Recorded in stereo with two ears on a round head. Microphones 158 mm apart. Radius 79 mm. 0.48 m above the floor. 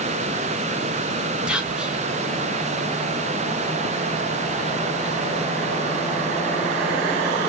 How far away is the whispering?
About 1.1 m.